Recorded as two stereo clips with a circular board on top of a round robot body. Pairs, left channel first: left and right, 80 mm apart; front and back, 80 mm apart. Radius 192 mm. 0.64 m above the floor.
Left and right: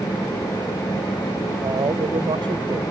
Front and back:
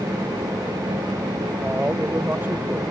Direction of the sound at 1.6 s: 110° right.